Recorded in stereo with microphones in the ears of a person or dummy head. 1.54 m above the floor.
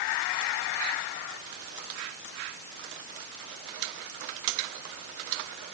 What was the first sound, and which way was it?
Only background noise.